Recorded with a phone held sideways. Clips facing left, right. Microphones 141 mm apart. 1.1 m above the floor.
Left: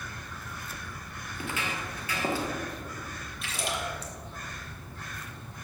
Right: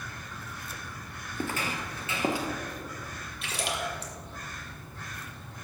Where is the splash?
70° right (ahead or behind), 2.5 m.